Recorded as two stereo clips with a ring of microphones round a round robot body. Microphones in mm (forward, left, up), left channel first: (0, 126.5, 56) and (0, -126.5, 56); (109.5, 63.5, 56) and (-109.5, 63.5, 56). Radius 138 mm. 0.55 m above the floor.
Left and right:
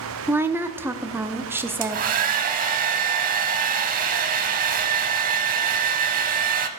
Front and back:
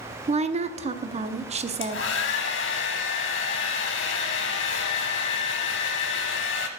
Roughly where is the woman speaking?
Behind.